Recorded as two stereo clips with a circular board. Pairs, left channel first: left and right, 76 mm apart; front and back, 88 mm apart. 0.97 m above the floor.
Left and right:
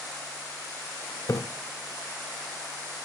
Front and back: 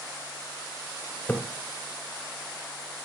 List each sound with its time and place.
1.3 s a splash: 65° left, 0.7 m